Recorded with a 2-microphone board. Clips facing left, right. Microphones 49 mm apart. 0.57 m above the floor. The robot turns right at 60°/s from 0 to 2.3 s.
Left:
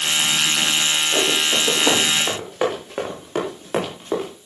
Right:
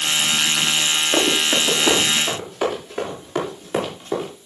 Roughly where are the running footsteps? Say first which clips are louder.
Right 2 dB; right.